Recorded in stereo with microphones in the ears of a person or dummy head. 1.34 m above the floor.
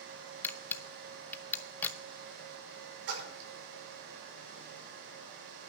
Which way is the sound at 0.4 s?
10° left (ahead or behind).